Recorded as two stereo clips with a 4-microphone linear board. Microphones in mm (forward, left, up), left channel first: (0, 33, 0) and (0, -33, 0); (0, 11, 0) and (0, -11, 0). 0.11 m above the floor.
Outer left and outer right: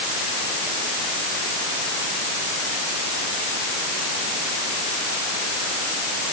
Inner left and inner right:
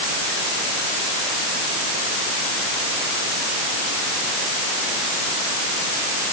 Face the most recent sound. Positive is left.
No sound to turn to.